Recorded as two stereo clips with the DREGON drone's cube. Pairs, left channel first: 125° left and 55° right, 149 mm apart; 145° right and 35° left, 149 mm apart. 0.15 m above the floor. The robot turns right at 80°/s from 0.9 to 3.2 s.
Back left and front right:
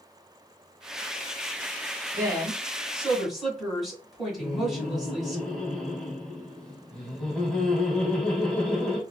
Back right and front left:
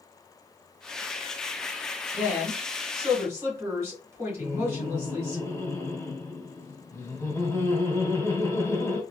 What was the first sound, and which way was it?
A woman speaking, 55° right.